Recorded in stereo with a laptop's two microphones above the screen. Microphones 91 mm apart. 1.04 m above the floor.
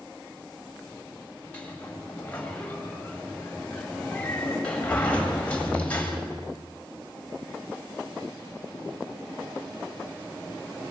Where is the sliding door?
15° left (ahead or behind), 3 m.